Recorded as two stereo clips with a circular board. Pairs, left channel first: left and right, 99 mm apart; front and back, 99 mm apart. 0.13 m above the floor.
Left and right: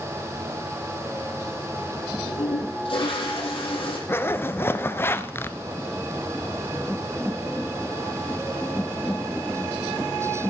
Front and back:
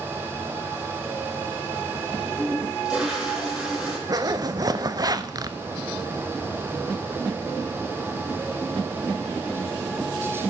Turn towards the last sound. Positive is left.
turn(degrees=150)